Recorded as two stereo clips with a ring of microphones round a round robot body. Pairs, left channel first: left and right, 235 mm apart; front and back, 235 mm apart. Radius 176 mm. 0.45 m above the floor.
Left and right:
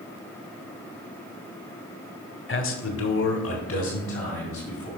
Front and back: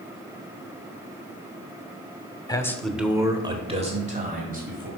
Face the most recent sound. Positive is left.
turn(degrees=130)